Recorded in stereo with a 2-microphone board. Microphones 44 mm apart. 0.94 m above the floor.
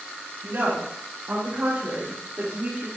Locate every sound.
0.4 s a woman speaking: 80° right, 3.5 m; by 2.9 s 55° right (ahead or behind), 1.7 m